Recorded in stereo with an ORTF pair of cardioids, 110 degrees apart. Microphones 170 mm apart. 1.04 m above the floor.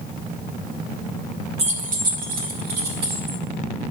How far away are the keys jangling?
About 0.8 m.